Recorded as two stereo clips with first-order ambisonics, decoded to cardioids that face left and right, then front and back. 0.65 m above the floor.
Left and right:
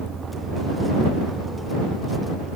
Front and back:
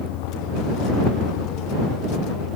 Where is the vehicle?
20° right; by 2.6 s 10° right.